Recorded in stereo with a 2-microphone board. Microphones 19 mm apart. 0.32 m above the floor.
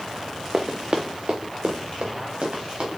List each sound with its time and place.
0.5 s running footsteps: 40° right (ahead or behind), 1.0 m; by 3.0 s 65° right (ahead or behind), 4 m